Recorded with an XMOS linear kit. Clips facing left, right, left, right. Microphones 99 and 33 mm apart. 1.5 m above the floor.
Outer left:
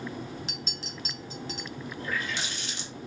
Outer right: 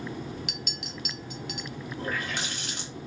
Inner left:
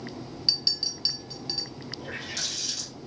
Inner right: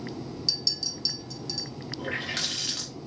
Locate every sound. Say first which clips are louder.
0.5 s a clink: outer right 1 dB, inner left 4 dB; 30° left (ahead or behind), 0.8 m
2.0 s a running tap: outer right 1 dB, inner right 5 dB; 50° right (ahead or behind), 1.4 m